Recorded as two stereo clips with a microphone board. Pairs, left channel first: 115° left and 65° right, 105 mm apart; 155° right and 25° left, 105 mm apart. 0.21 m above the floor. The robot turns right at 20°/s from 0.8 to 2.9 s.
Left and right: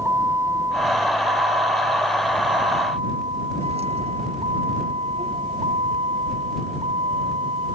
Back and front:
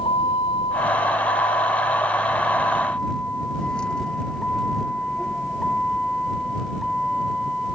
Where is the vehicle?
130° right; by 7.8 s 70° right.